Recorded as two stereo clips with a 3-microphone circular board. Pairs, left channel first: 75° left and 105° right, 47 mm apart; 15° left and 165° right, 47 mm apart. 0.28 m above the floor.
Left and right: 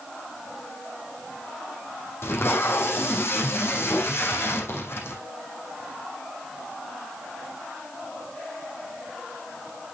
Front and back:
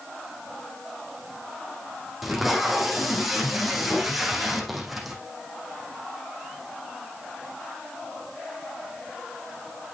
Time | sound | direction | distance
2.2 | tape being pulled | 105° left | 3 m